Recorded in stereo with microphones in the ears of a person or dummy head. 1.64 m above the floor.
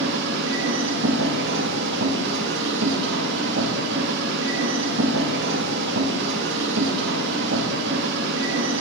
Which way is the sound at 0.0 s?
65° right (ahead or behind).